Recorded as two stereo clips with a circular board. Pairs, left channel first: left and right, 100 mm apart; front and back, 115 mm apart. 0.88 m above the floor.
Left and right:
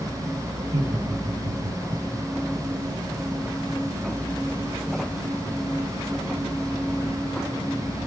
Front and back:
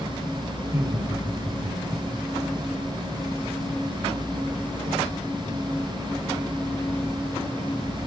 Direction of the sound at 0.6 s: 115° right.